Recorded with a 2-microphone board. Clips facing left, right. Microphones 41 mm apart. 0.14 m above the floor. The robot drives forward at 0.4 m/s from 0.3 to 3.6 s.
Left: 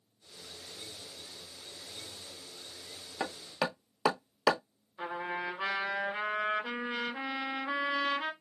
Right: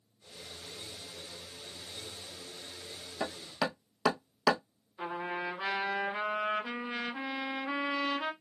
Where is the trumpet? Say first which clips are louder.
Even; 10° left (ahead or behind), 2 m.